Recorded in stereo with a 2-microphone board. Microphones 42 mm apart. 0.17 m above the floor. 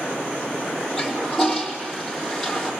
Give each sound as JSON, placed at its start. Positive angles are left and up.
{"t": 1.0, "sound": "a toilet flushing", "side_deg": 10, "distance_m": 3.0}